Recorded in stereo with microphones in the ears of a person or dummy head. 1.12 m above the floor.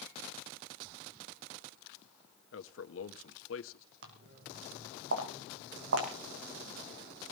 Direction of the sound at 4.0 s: 65° right (ahead or behind).